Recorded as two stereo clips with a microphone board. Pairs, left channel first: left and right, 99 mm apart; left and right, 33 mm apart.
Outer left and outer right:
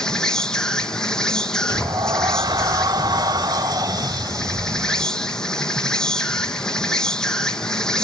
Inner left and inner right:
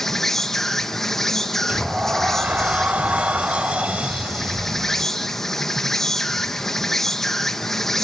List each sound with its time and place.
0.0 s an insect: 10° left (ahead or behind), 1.4 m
1.7 s a sliding door: 40° right (ahead or behind), 0.6 m